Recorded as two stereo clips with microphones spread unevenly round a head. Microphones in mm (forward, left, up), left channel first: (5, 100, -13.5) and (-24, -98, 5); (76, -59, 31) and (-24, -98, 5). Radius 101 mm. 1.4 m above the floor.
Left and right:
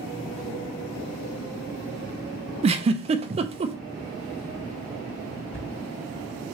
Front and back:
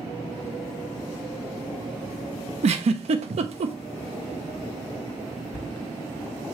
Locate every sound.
2.6 s a giggle: 145° right, 0.5 m
5.5 s a cupboard door: 170° left, 2.5 m